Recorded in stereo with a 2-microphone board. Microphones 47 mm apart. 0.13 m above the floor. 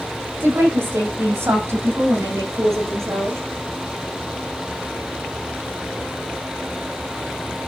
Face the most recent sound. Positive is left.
turn(degrees=-70)  # may be behind; listen again after turning